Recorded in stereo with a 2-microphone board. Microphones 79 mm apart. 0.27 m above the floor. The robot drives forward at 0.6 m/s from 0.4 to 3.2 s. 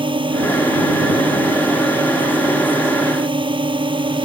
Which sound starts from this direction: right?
A drone, at 0.0 s.